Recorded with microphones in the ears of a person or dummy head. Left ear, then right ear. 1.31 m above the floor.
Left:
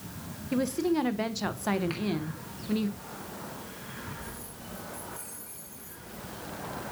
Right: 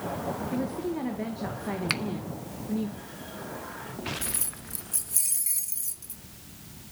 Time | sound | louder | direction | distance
0.5 | a woman speaking | left 3 dB | 80° left | 1.2 m
1.9 | a finger snap | right 7 dB | 70° right (ahead or behind) | 0.9 m
4.2 | keys jangling | right 6 dB | 55° right (ahead or behind) | 0.8 m